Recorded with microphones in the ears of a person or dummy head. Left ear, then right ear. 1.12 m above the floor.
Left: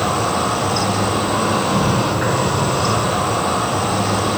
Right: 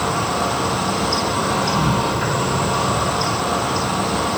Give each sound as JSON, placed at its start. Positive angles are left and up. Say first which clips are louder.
{"t": 0.0, "sound": "an insect", "louder": "left 2 dB", "side_deg": 5, "distance_m": 1.7}